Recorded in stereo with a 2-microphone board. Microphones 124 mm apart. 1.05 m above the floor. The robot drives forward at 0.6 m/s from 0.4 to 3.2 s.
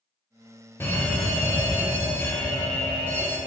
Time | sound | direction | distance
0.8 | a fire alarm | 15° left (ahead or behind) | 1.4 m